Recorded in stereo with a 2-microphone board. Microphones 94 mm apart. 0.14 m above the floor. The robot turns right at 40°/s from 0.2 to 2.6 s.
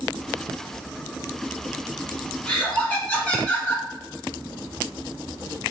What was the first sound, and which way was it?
Laughter, 10° left (ahead or behind).